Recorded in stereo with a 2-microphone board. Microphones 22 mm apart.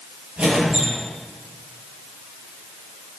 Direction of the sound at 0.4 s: 65° right (ahead or behind).